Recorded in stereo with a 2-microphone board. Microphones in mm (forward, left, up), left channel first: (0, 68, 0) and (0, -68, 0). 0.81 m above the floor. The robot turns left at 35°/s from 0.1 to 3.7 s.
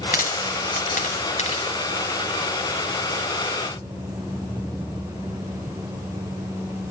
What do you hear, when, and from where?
0.1 s a dropped coin: 80° left, 2 m; by 1.8 s 40° left (ahead or behind), 2 m